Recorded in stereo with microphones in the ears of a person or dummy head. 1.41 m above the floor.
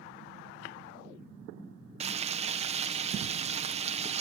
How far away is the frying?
About 0.7 m.